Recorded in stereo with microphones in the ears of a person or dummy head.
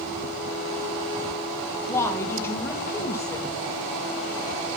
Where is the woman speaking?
15° left (ahead or behind), 1.4 m.